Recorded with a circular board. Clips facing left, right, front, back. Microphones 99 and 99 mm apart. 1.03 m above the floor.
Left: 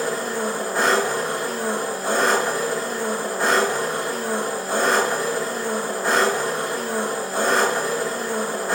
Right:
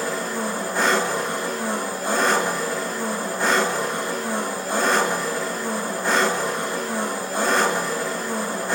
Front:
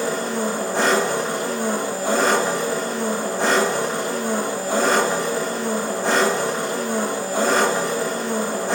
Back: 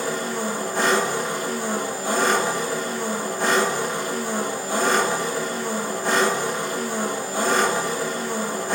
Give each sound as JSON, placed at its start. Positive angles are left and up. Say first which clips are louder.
{"t": 0.0, "sound": "an engine running", "louder": "left 2 dB, front 3 dB", "azimuth_deg": 5, "distance_m": 1.4}